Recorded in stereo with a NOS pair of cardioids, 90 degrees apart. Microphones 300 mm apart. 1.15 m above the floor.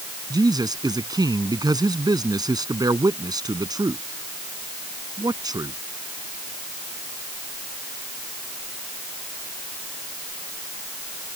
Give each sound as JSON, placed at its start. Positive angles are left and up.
{"t": 0.3, "sound": "a man speaking", "azimuth_deg": -15}